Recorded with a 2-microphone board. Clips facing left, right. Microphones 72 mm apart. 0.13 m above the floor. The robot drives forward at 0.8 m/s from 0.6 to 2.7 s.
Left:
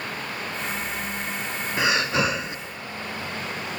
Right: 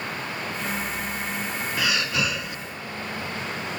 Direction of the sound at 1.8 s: 25° left (ahead or behind).